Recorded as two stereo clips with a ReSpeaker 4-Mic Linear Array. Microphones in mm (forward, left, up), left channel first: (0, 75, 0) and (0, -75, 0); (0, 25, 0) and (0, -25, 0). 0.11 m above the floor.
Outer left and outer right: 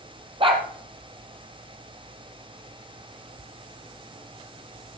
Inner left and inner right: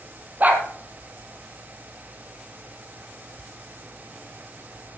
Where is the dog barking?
35° right (ahead or behind), 1.6 m.